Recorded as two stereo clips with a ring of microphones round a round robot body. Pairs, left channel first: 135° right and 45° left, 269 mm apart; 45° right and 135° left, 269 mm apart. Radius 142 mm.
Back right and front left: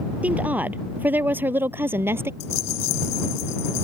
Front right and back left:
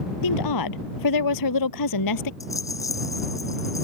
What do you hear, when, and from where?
0.2 s a woman speaking: 40° right; by 2.3 s 35° right
2.4 s a rattle: 125° right